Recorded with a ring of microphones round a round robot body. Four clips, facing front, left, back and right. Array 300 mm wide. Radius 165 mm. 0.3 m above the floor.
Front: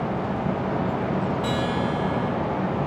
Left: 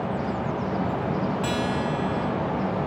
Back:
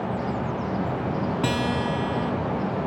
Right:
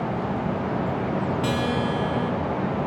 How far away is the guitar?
About 0.7 m.